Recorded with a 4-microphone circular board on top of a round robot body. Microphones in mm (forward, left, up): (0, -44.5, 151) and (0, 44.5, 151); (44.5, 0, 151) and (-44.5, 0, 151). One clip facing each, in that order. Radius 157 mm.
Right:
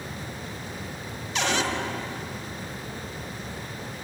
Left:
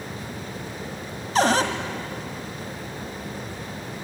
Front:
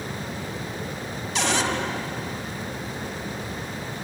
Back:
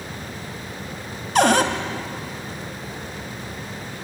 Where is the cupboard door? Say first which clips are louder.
Left 7 dB, back 8 dB; 140° left, 1.5 m.